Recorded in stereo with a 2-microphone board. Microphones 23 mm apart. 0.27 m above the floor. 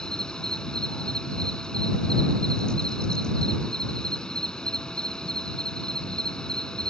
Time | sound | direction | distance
0.0 | an insect | 40° left (ahead or behind) | ?